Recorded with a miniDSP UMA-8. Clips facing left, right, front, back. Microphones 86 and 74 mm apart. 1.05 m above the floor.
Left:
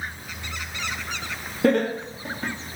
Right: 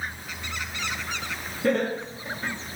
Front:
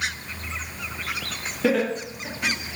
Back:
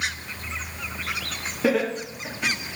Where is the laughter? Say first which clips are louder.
Left 4 dB, even; 95° left, 2.5 m.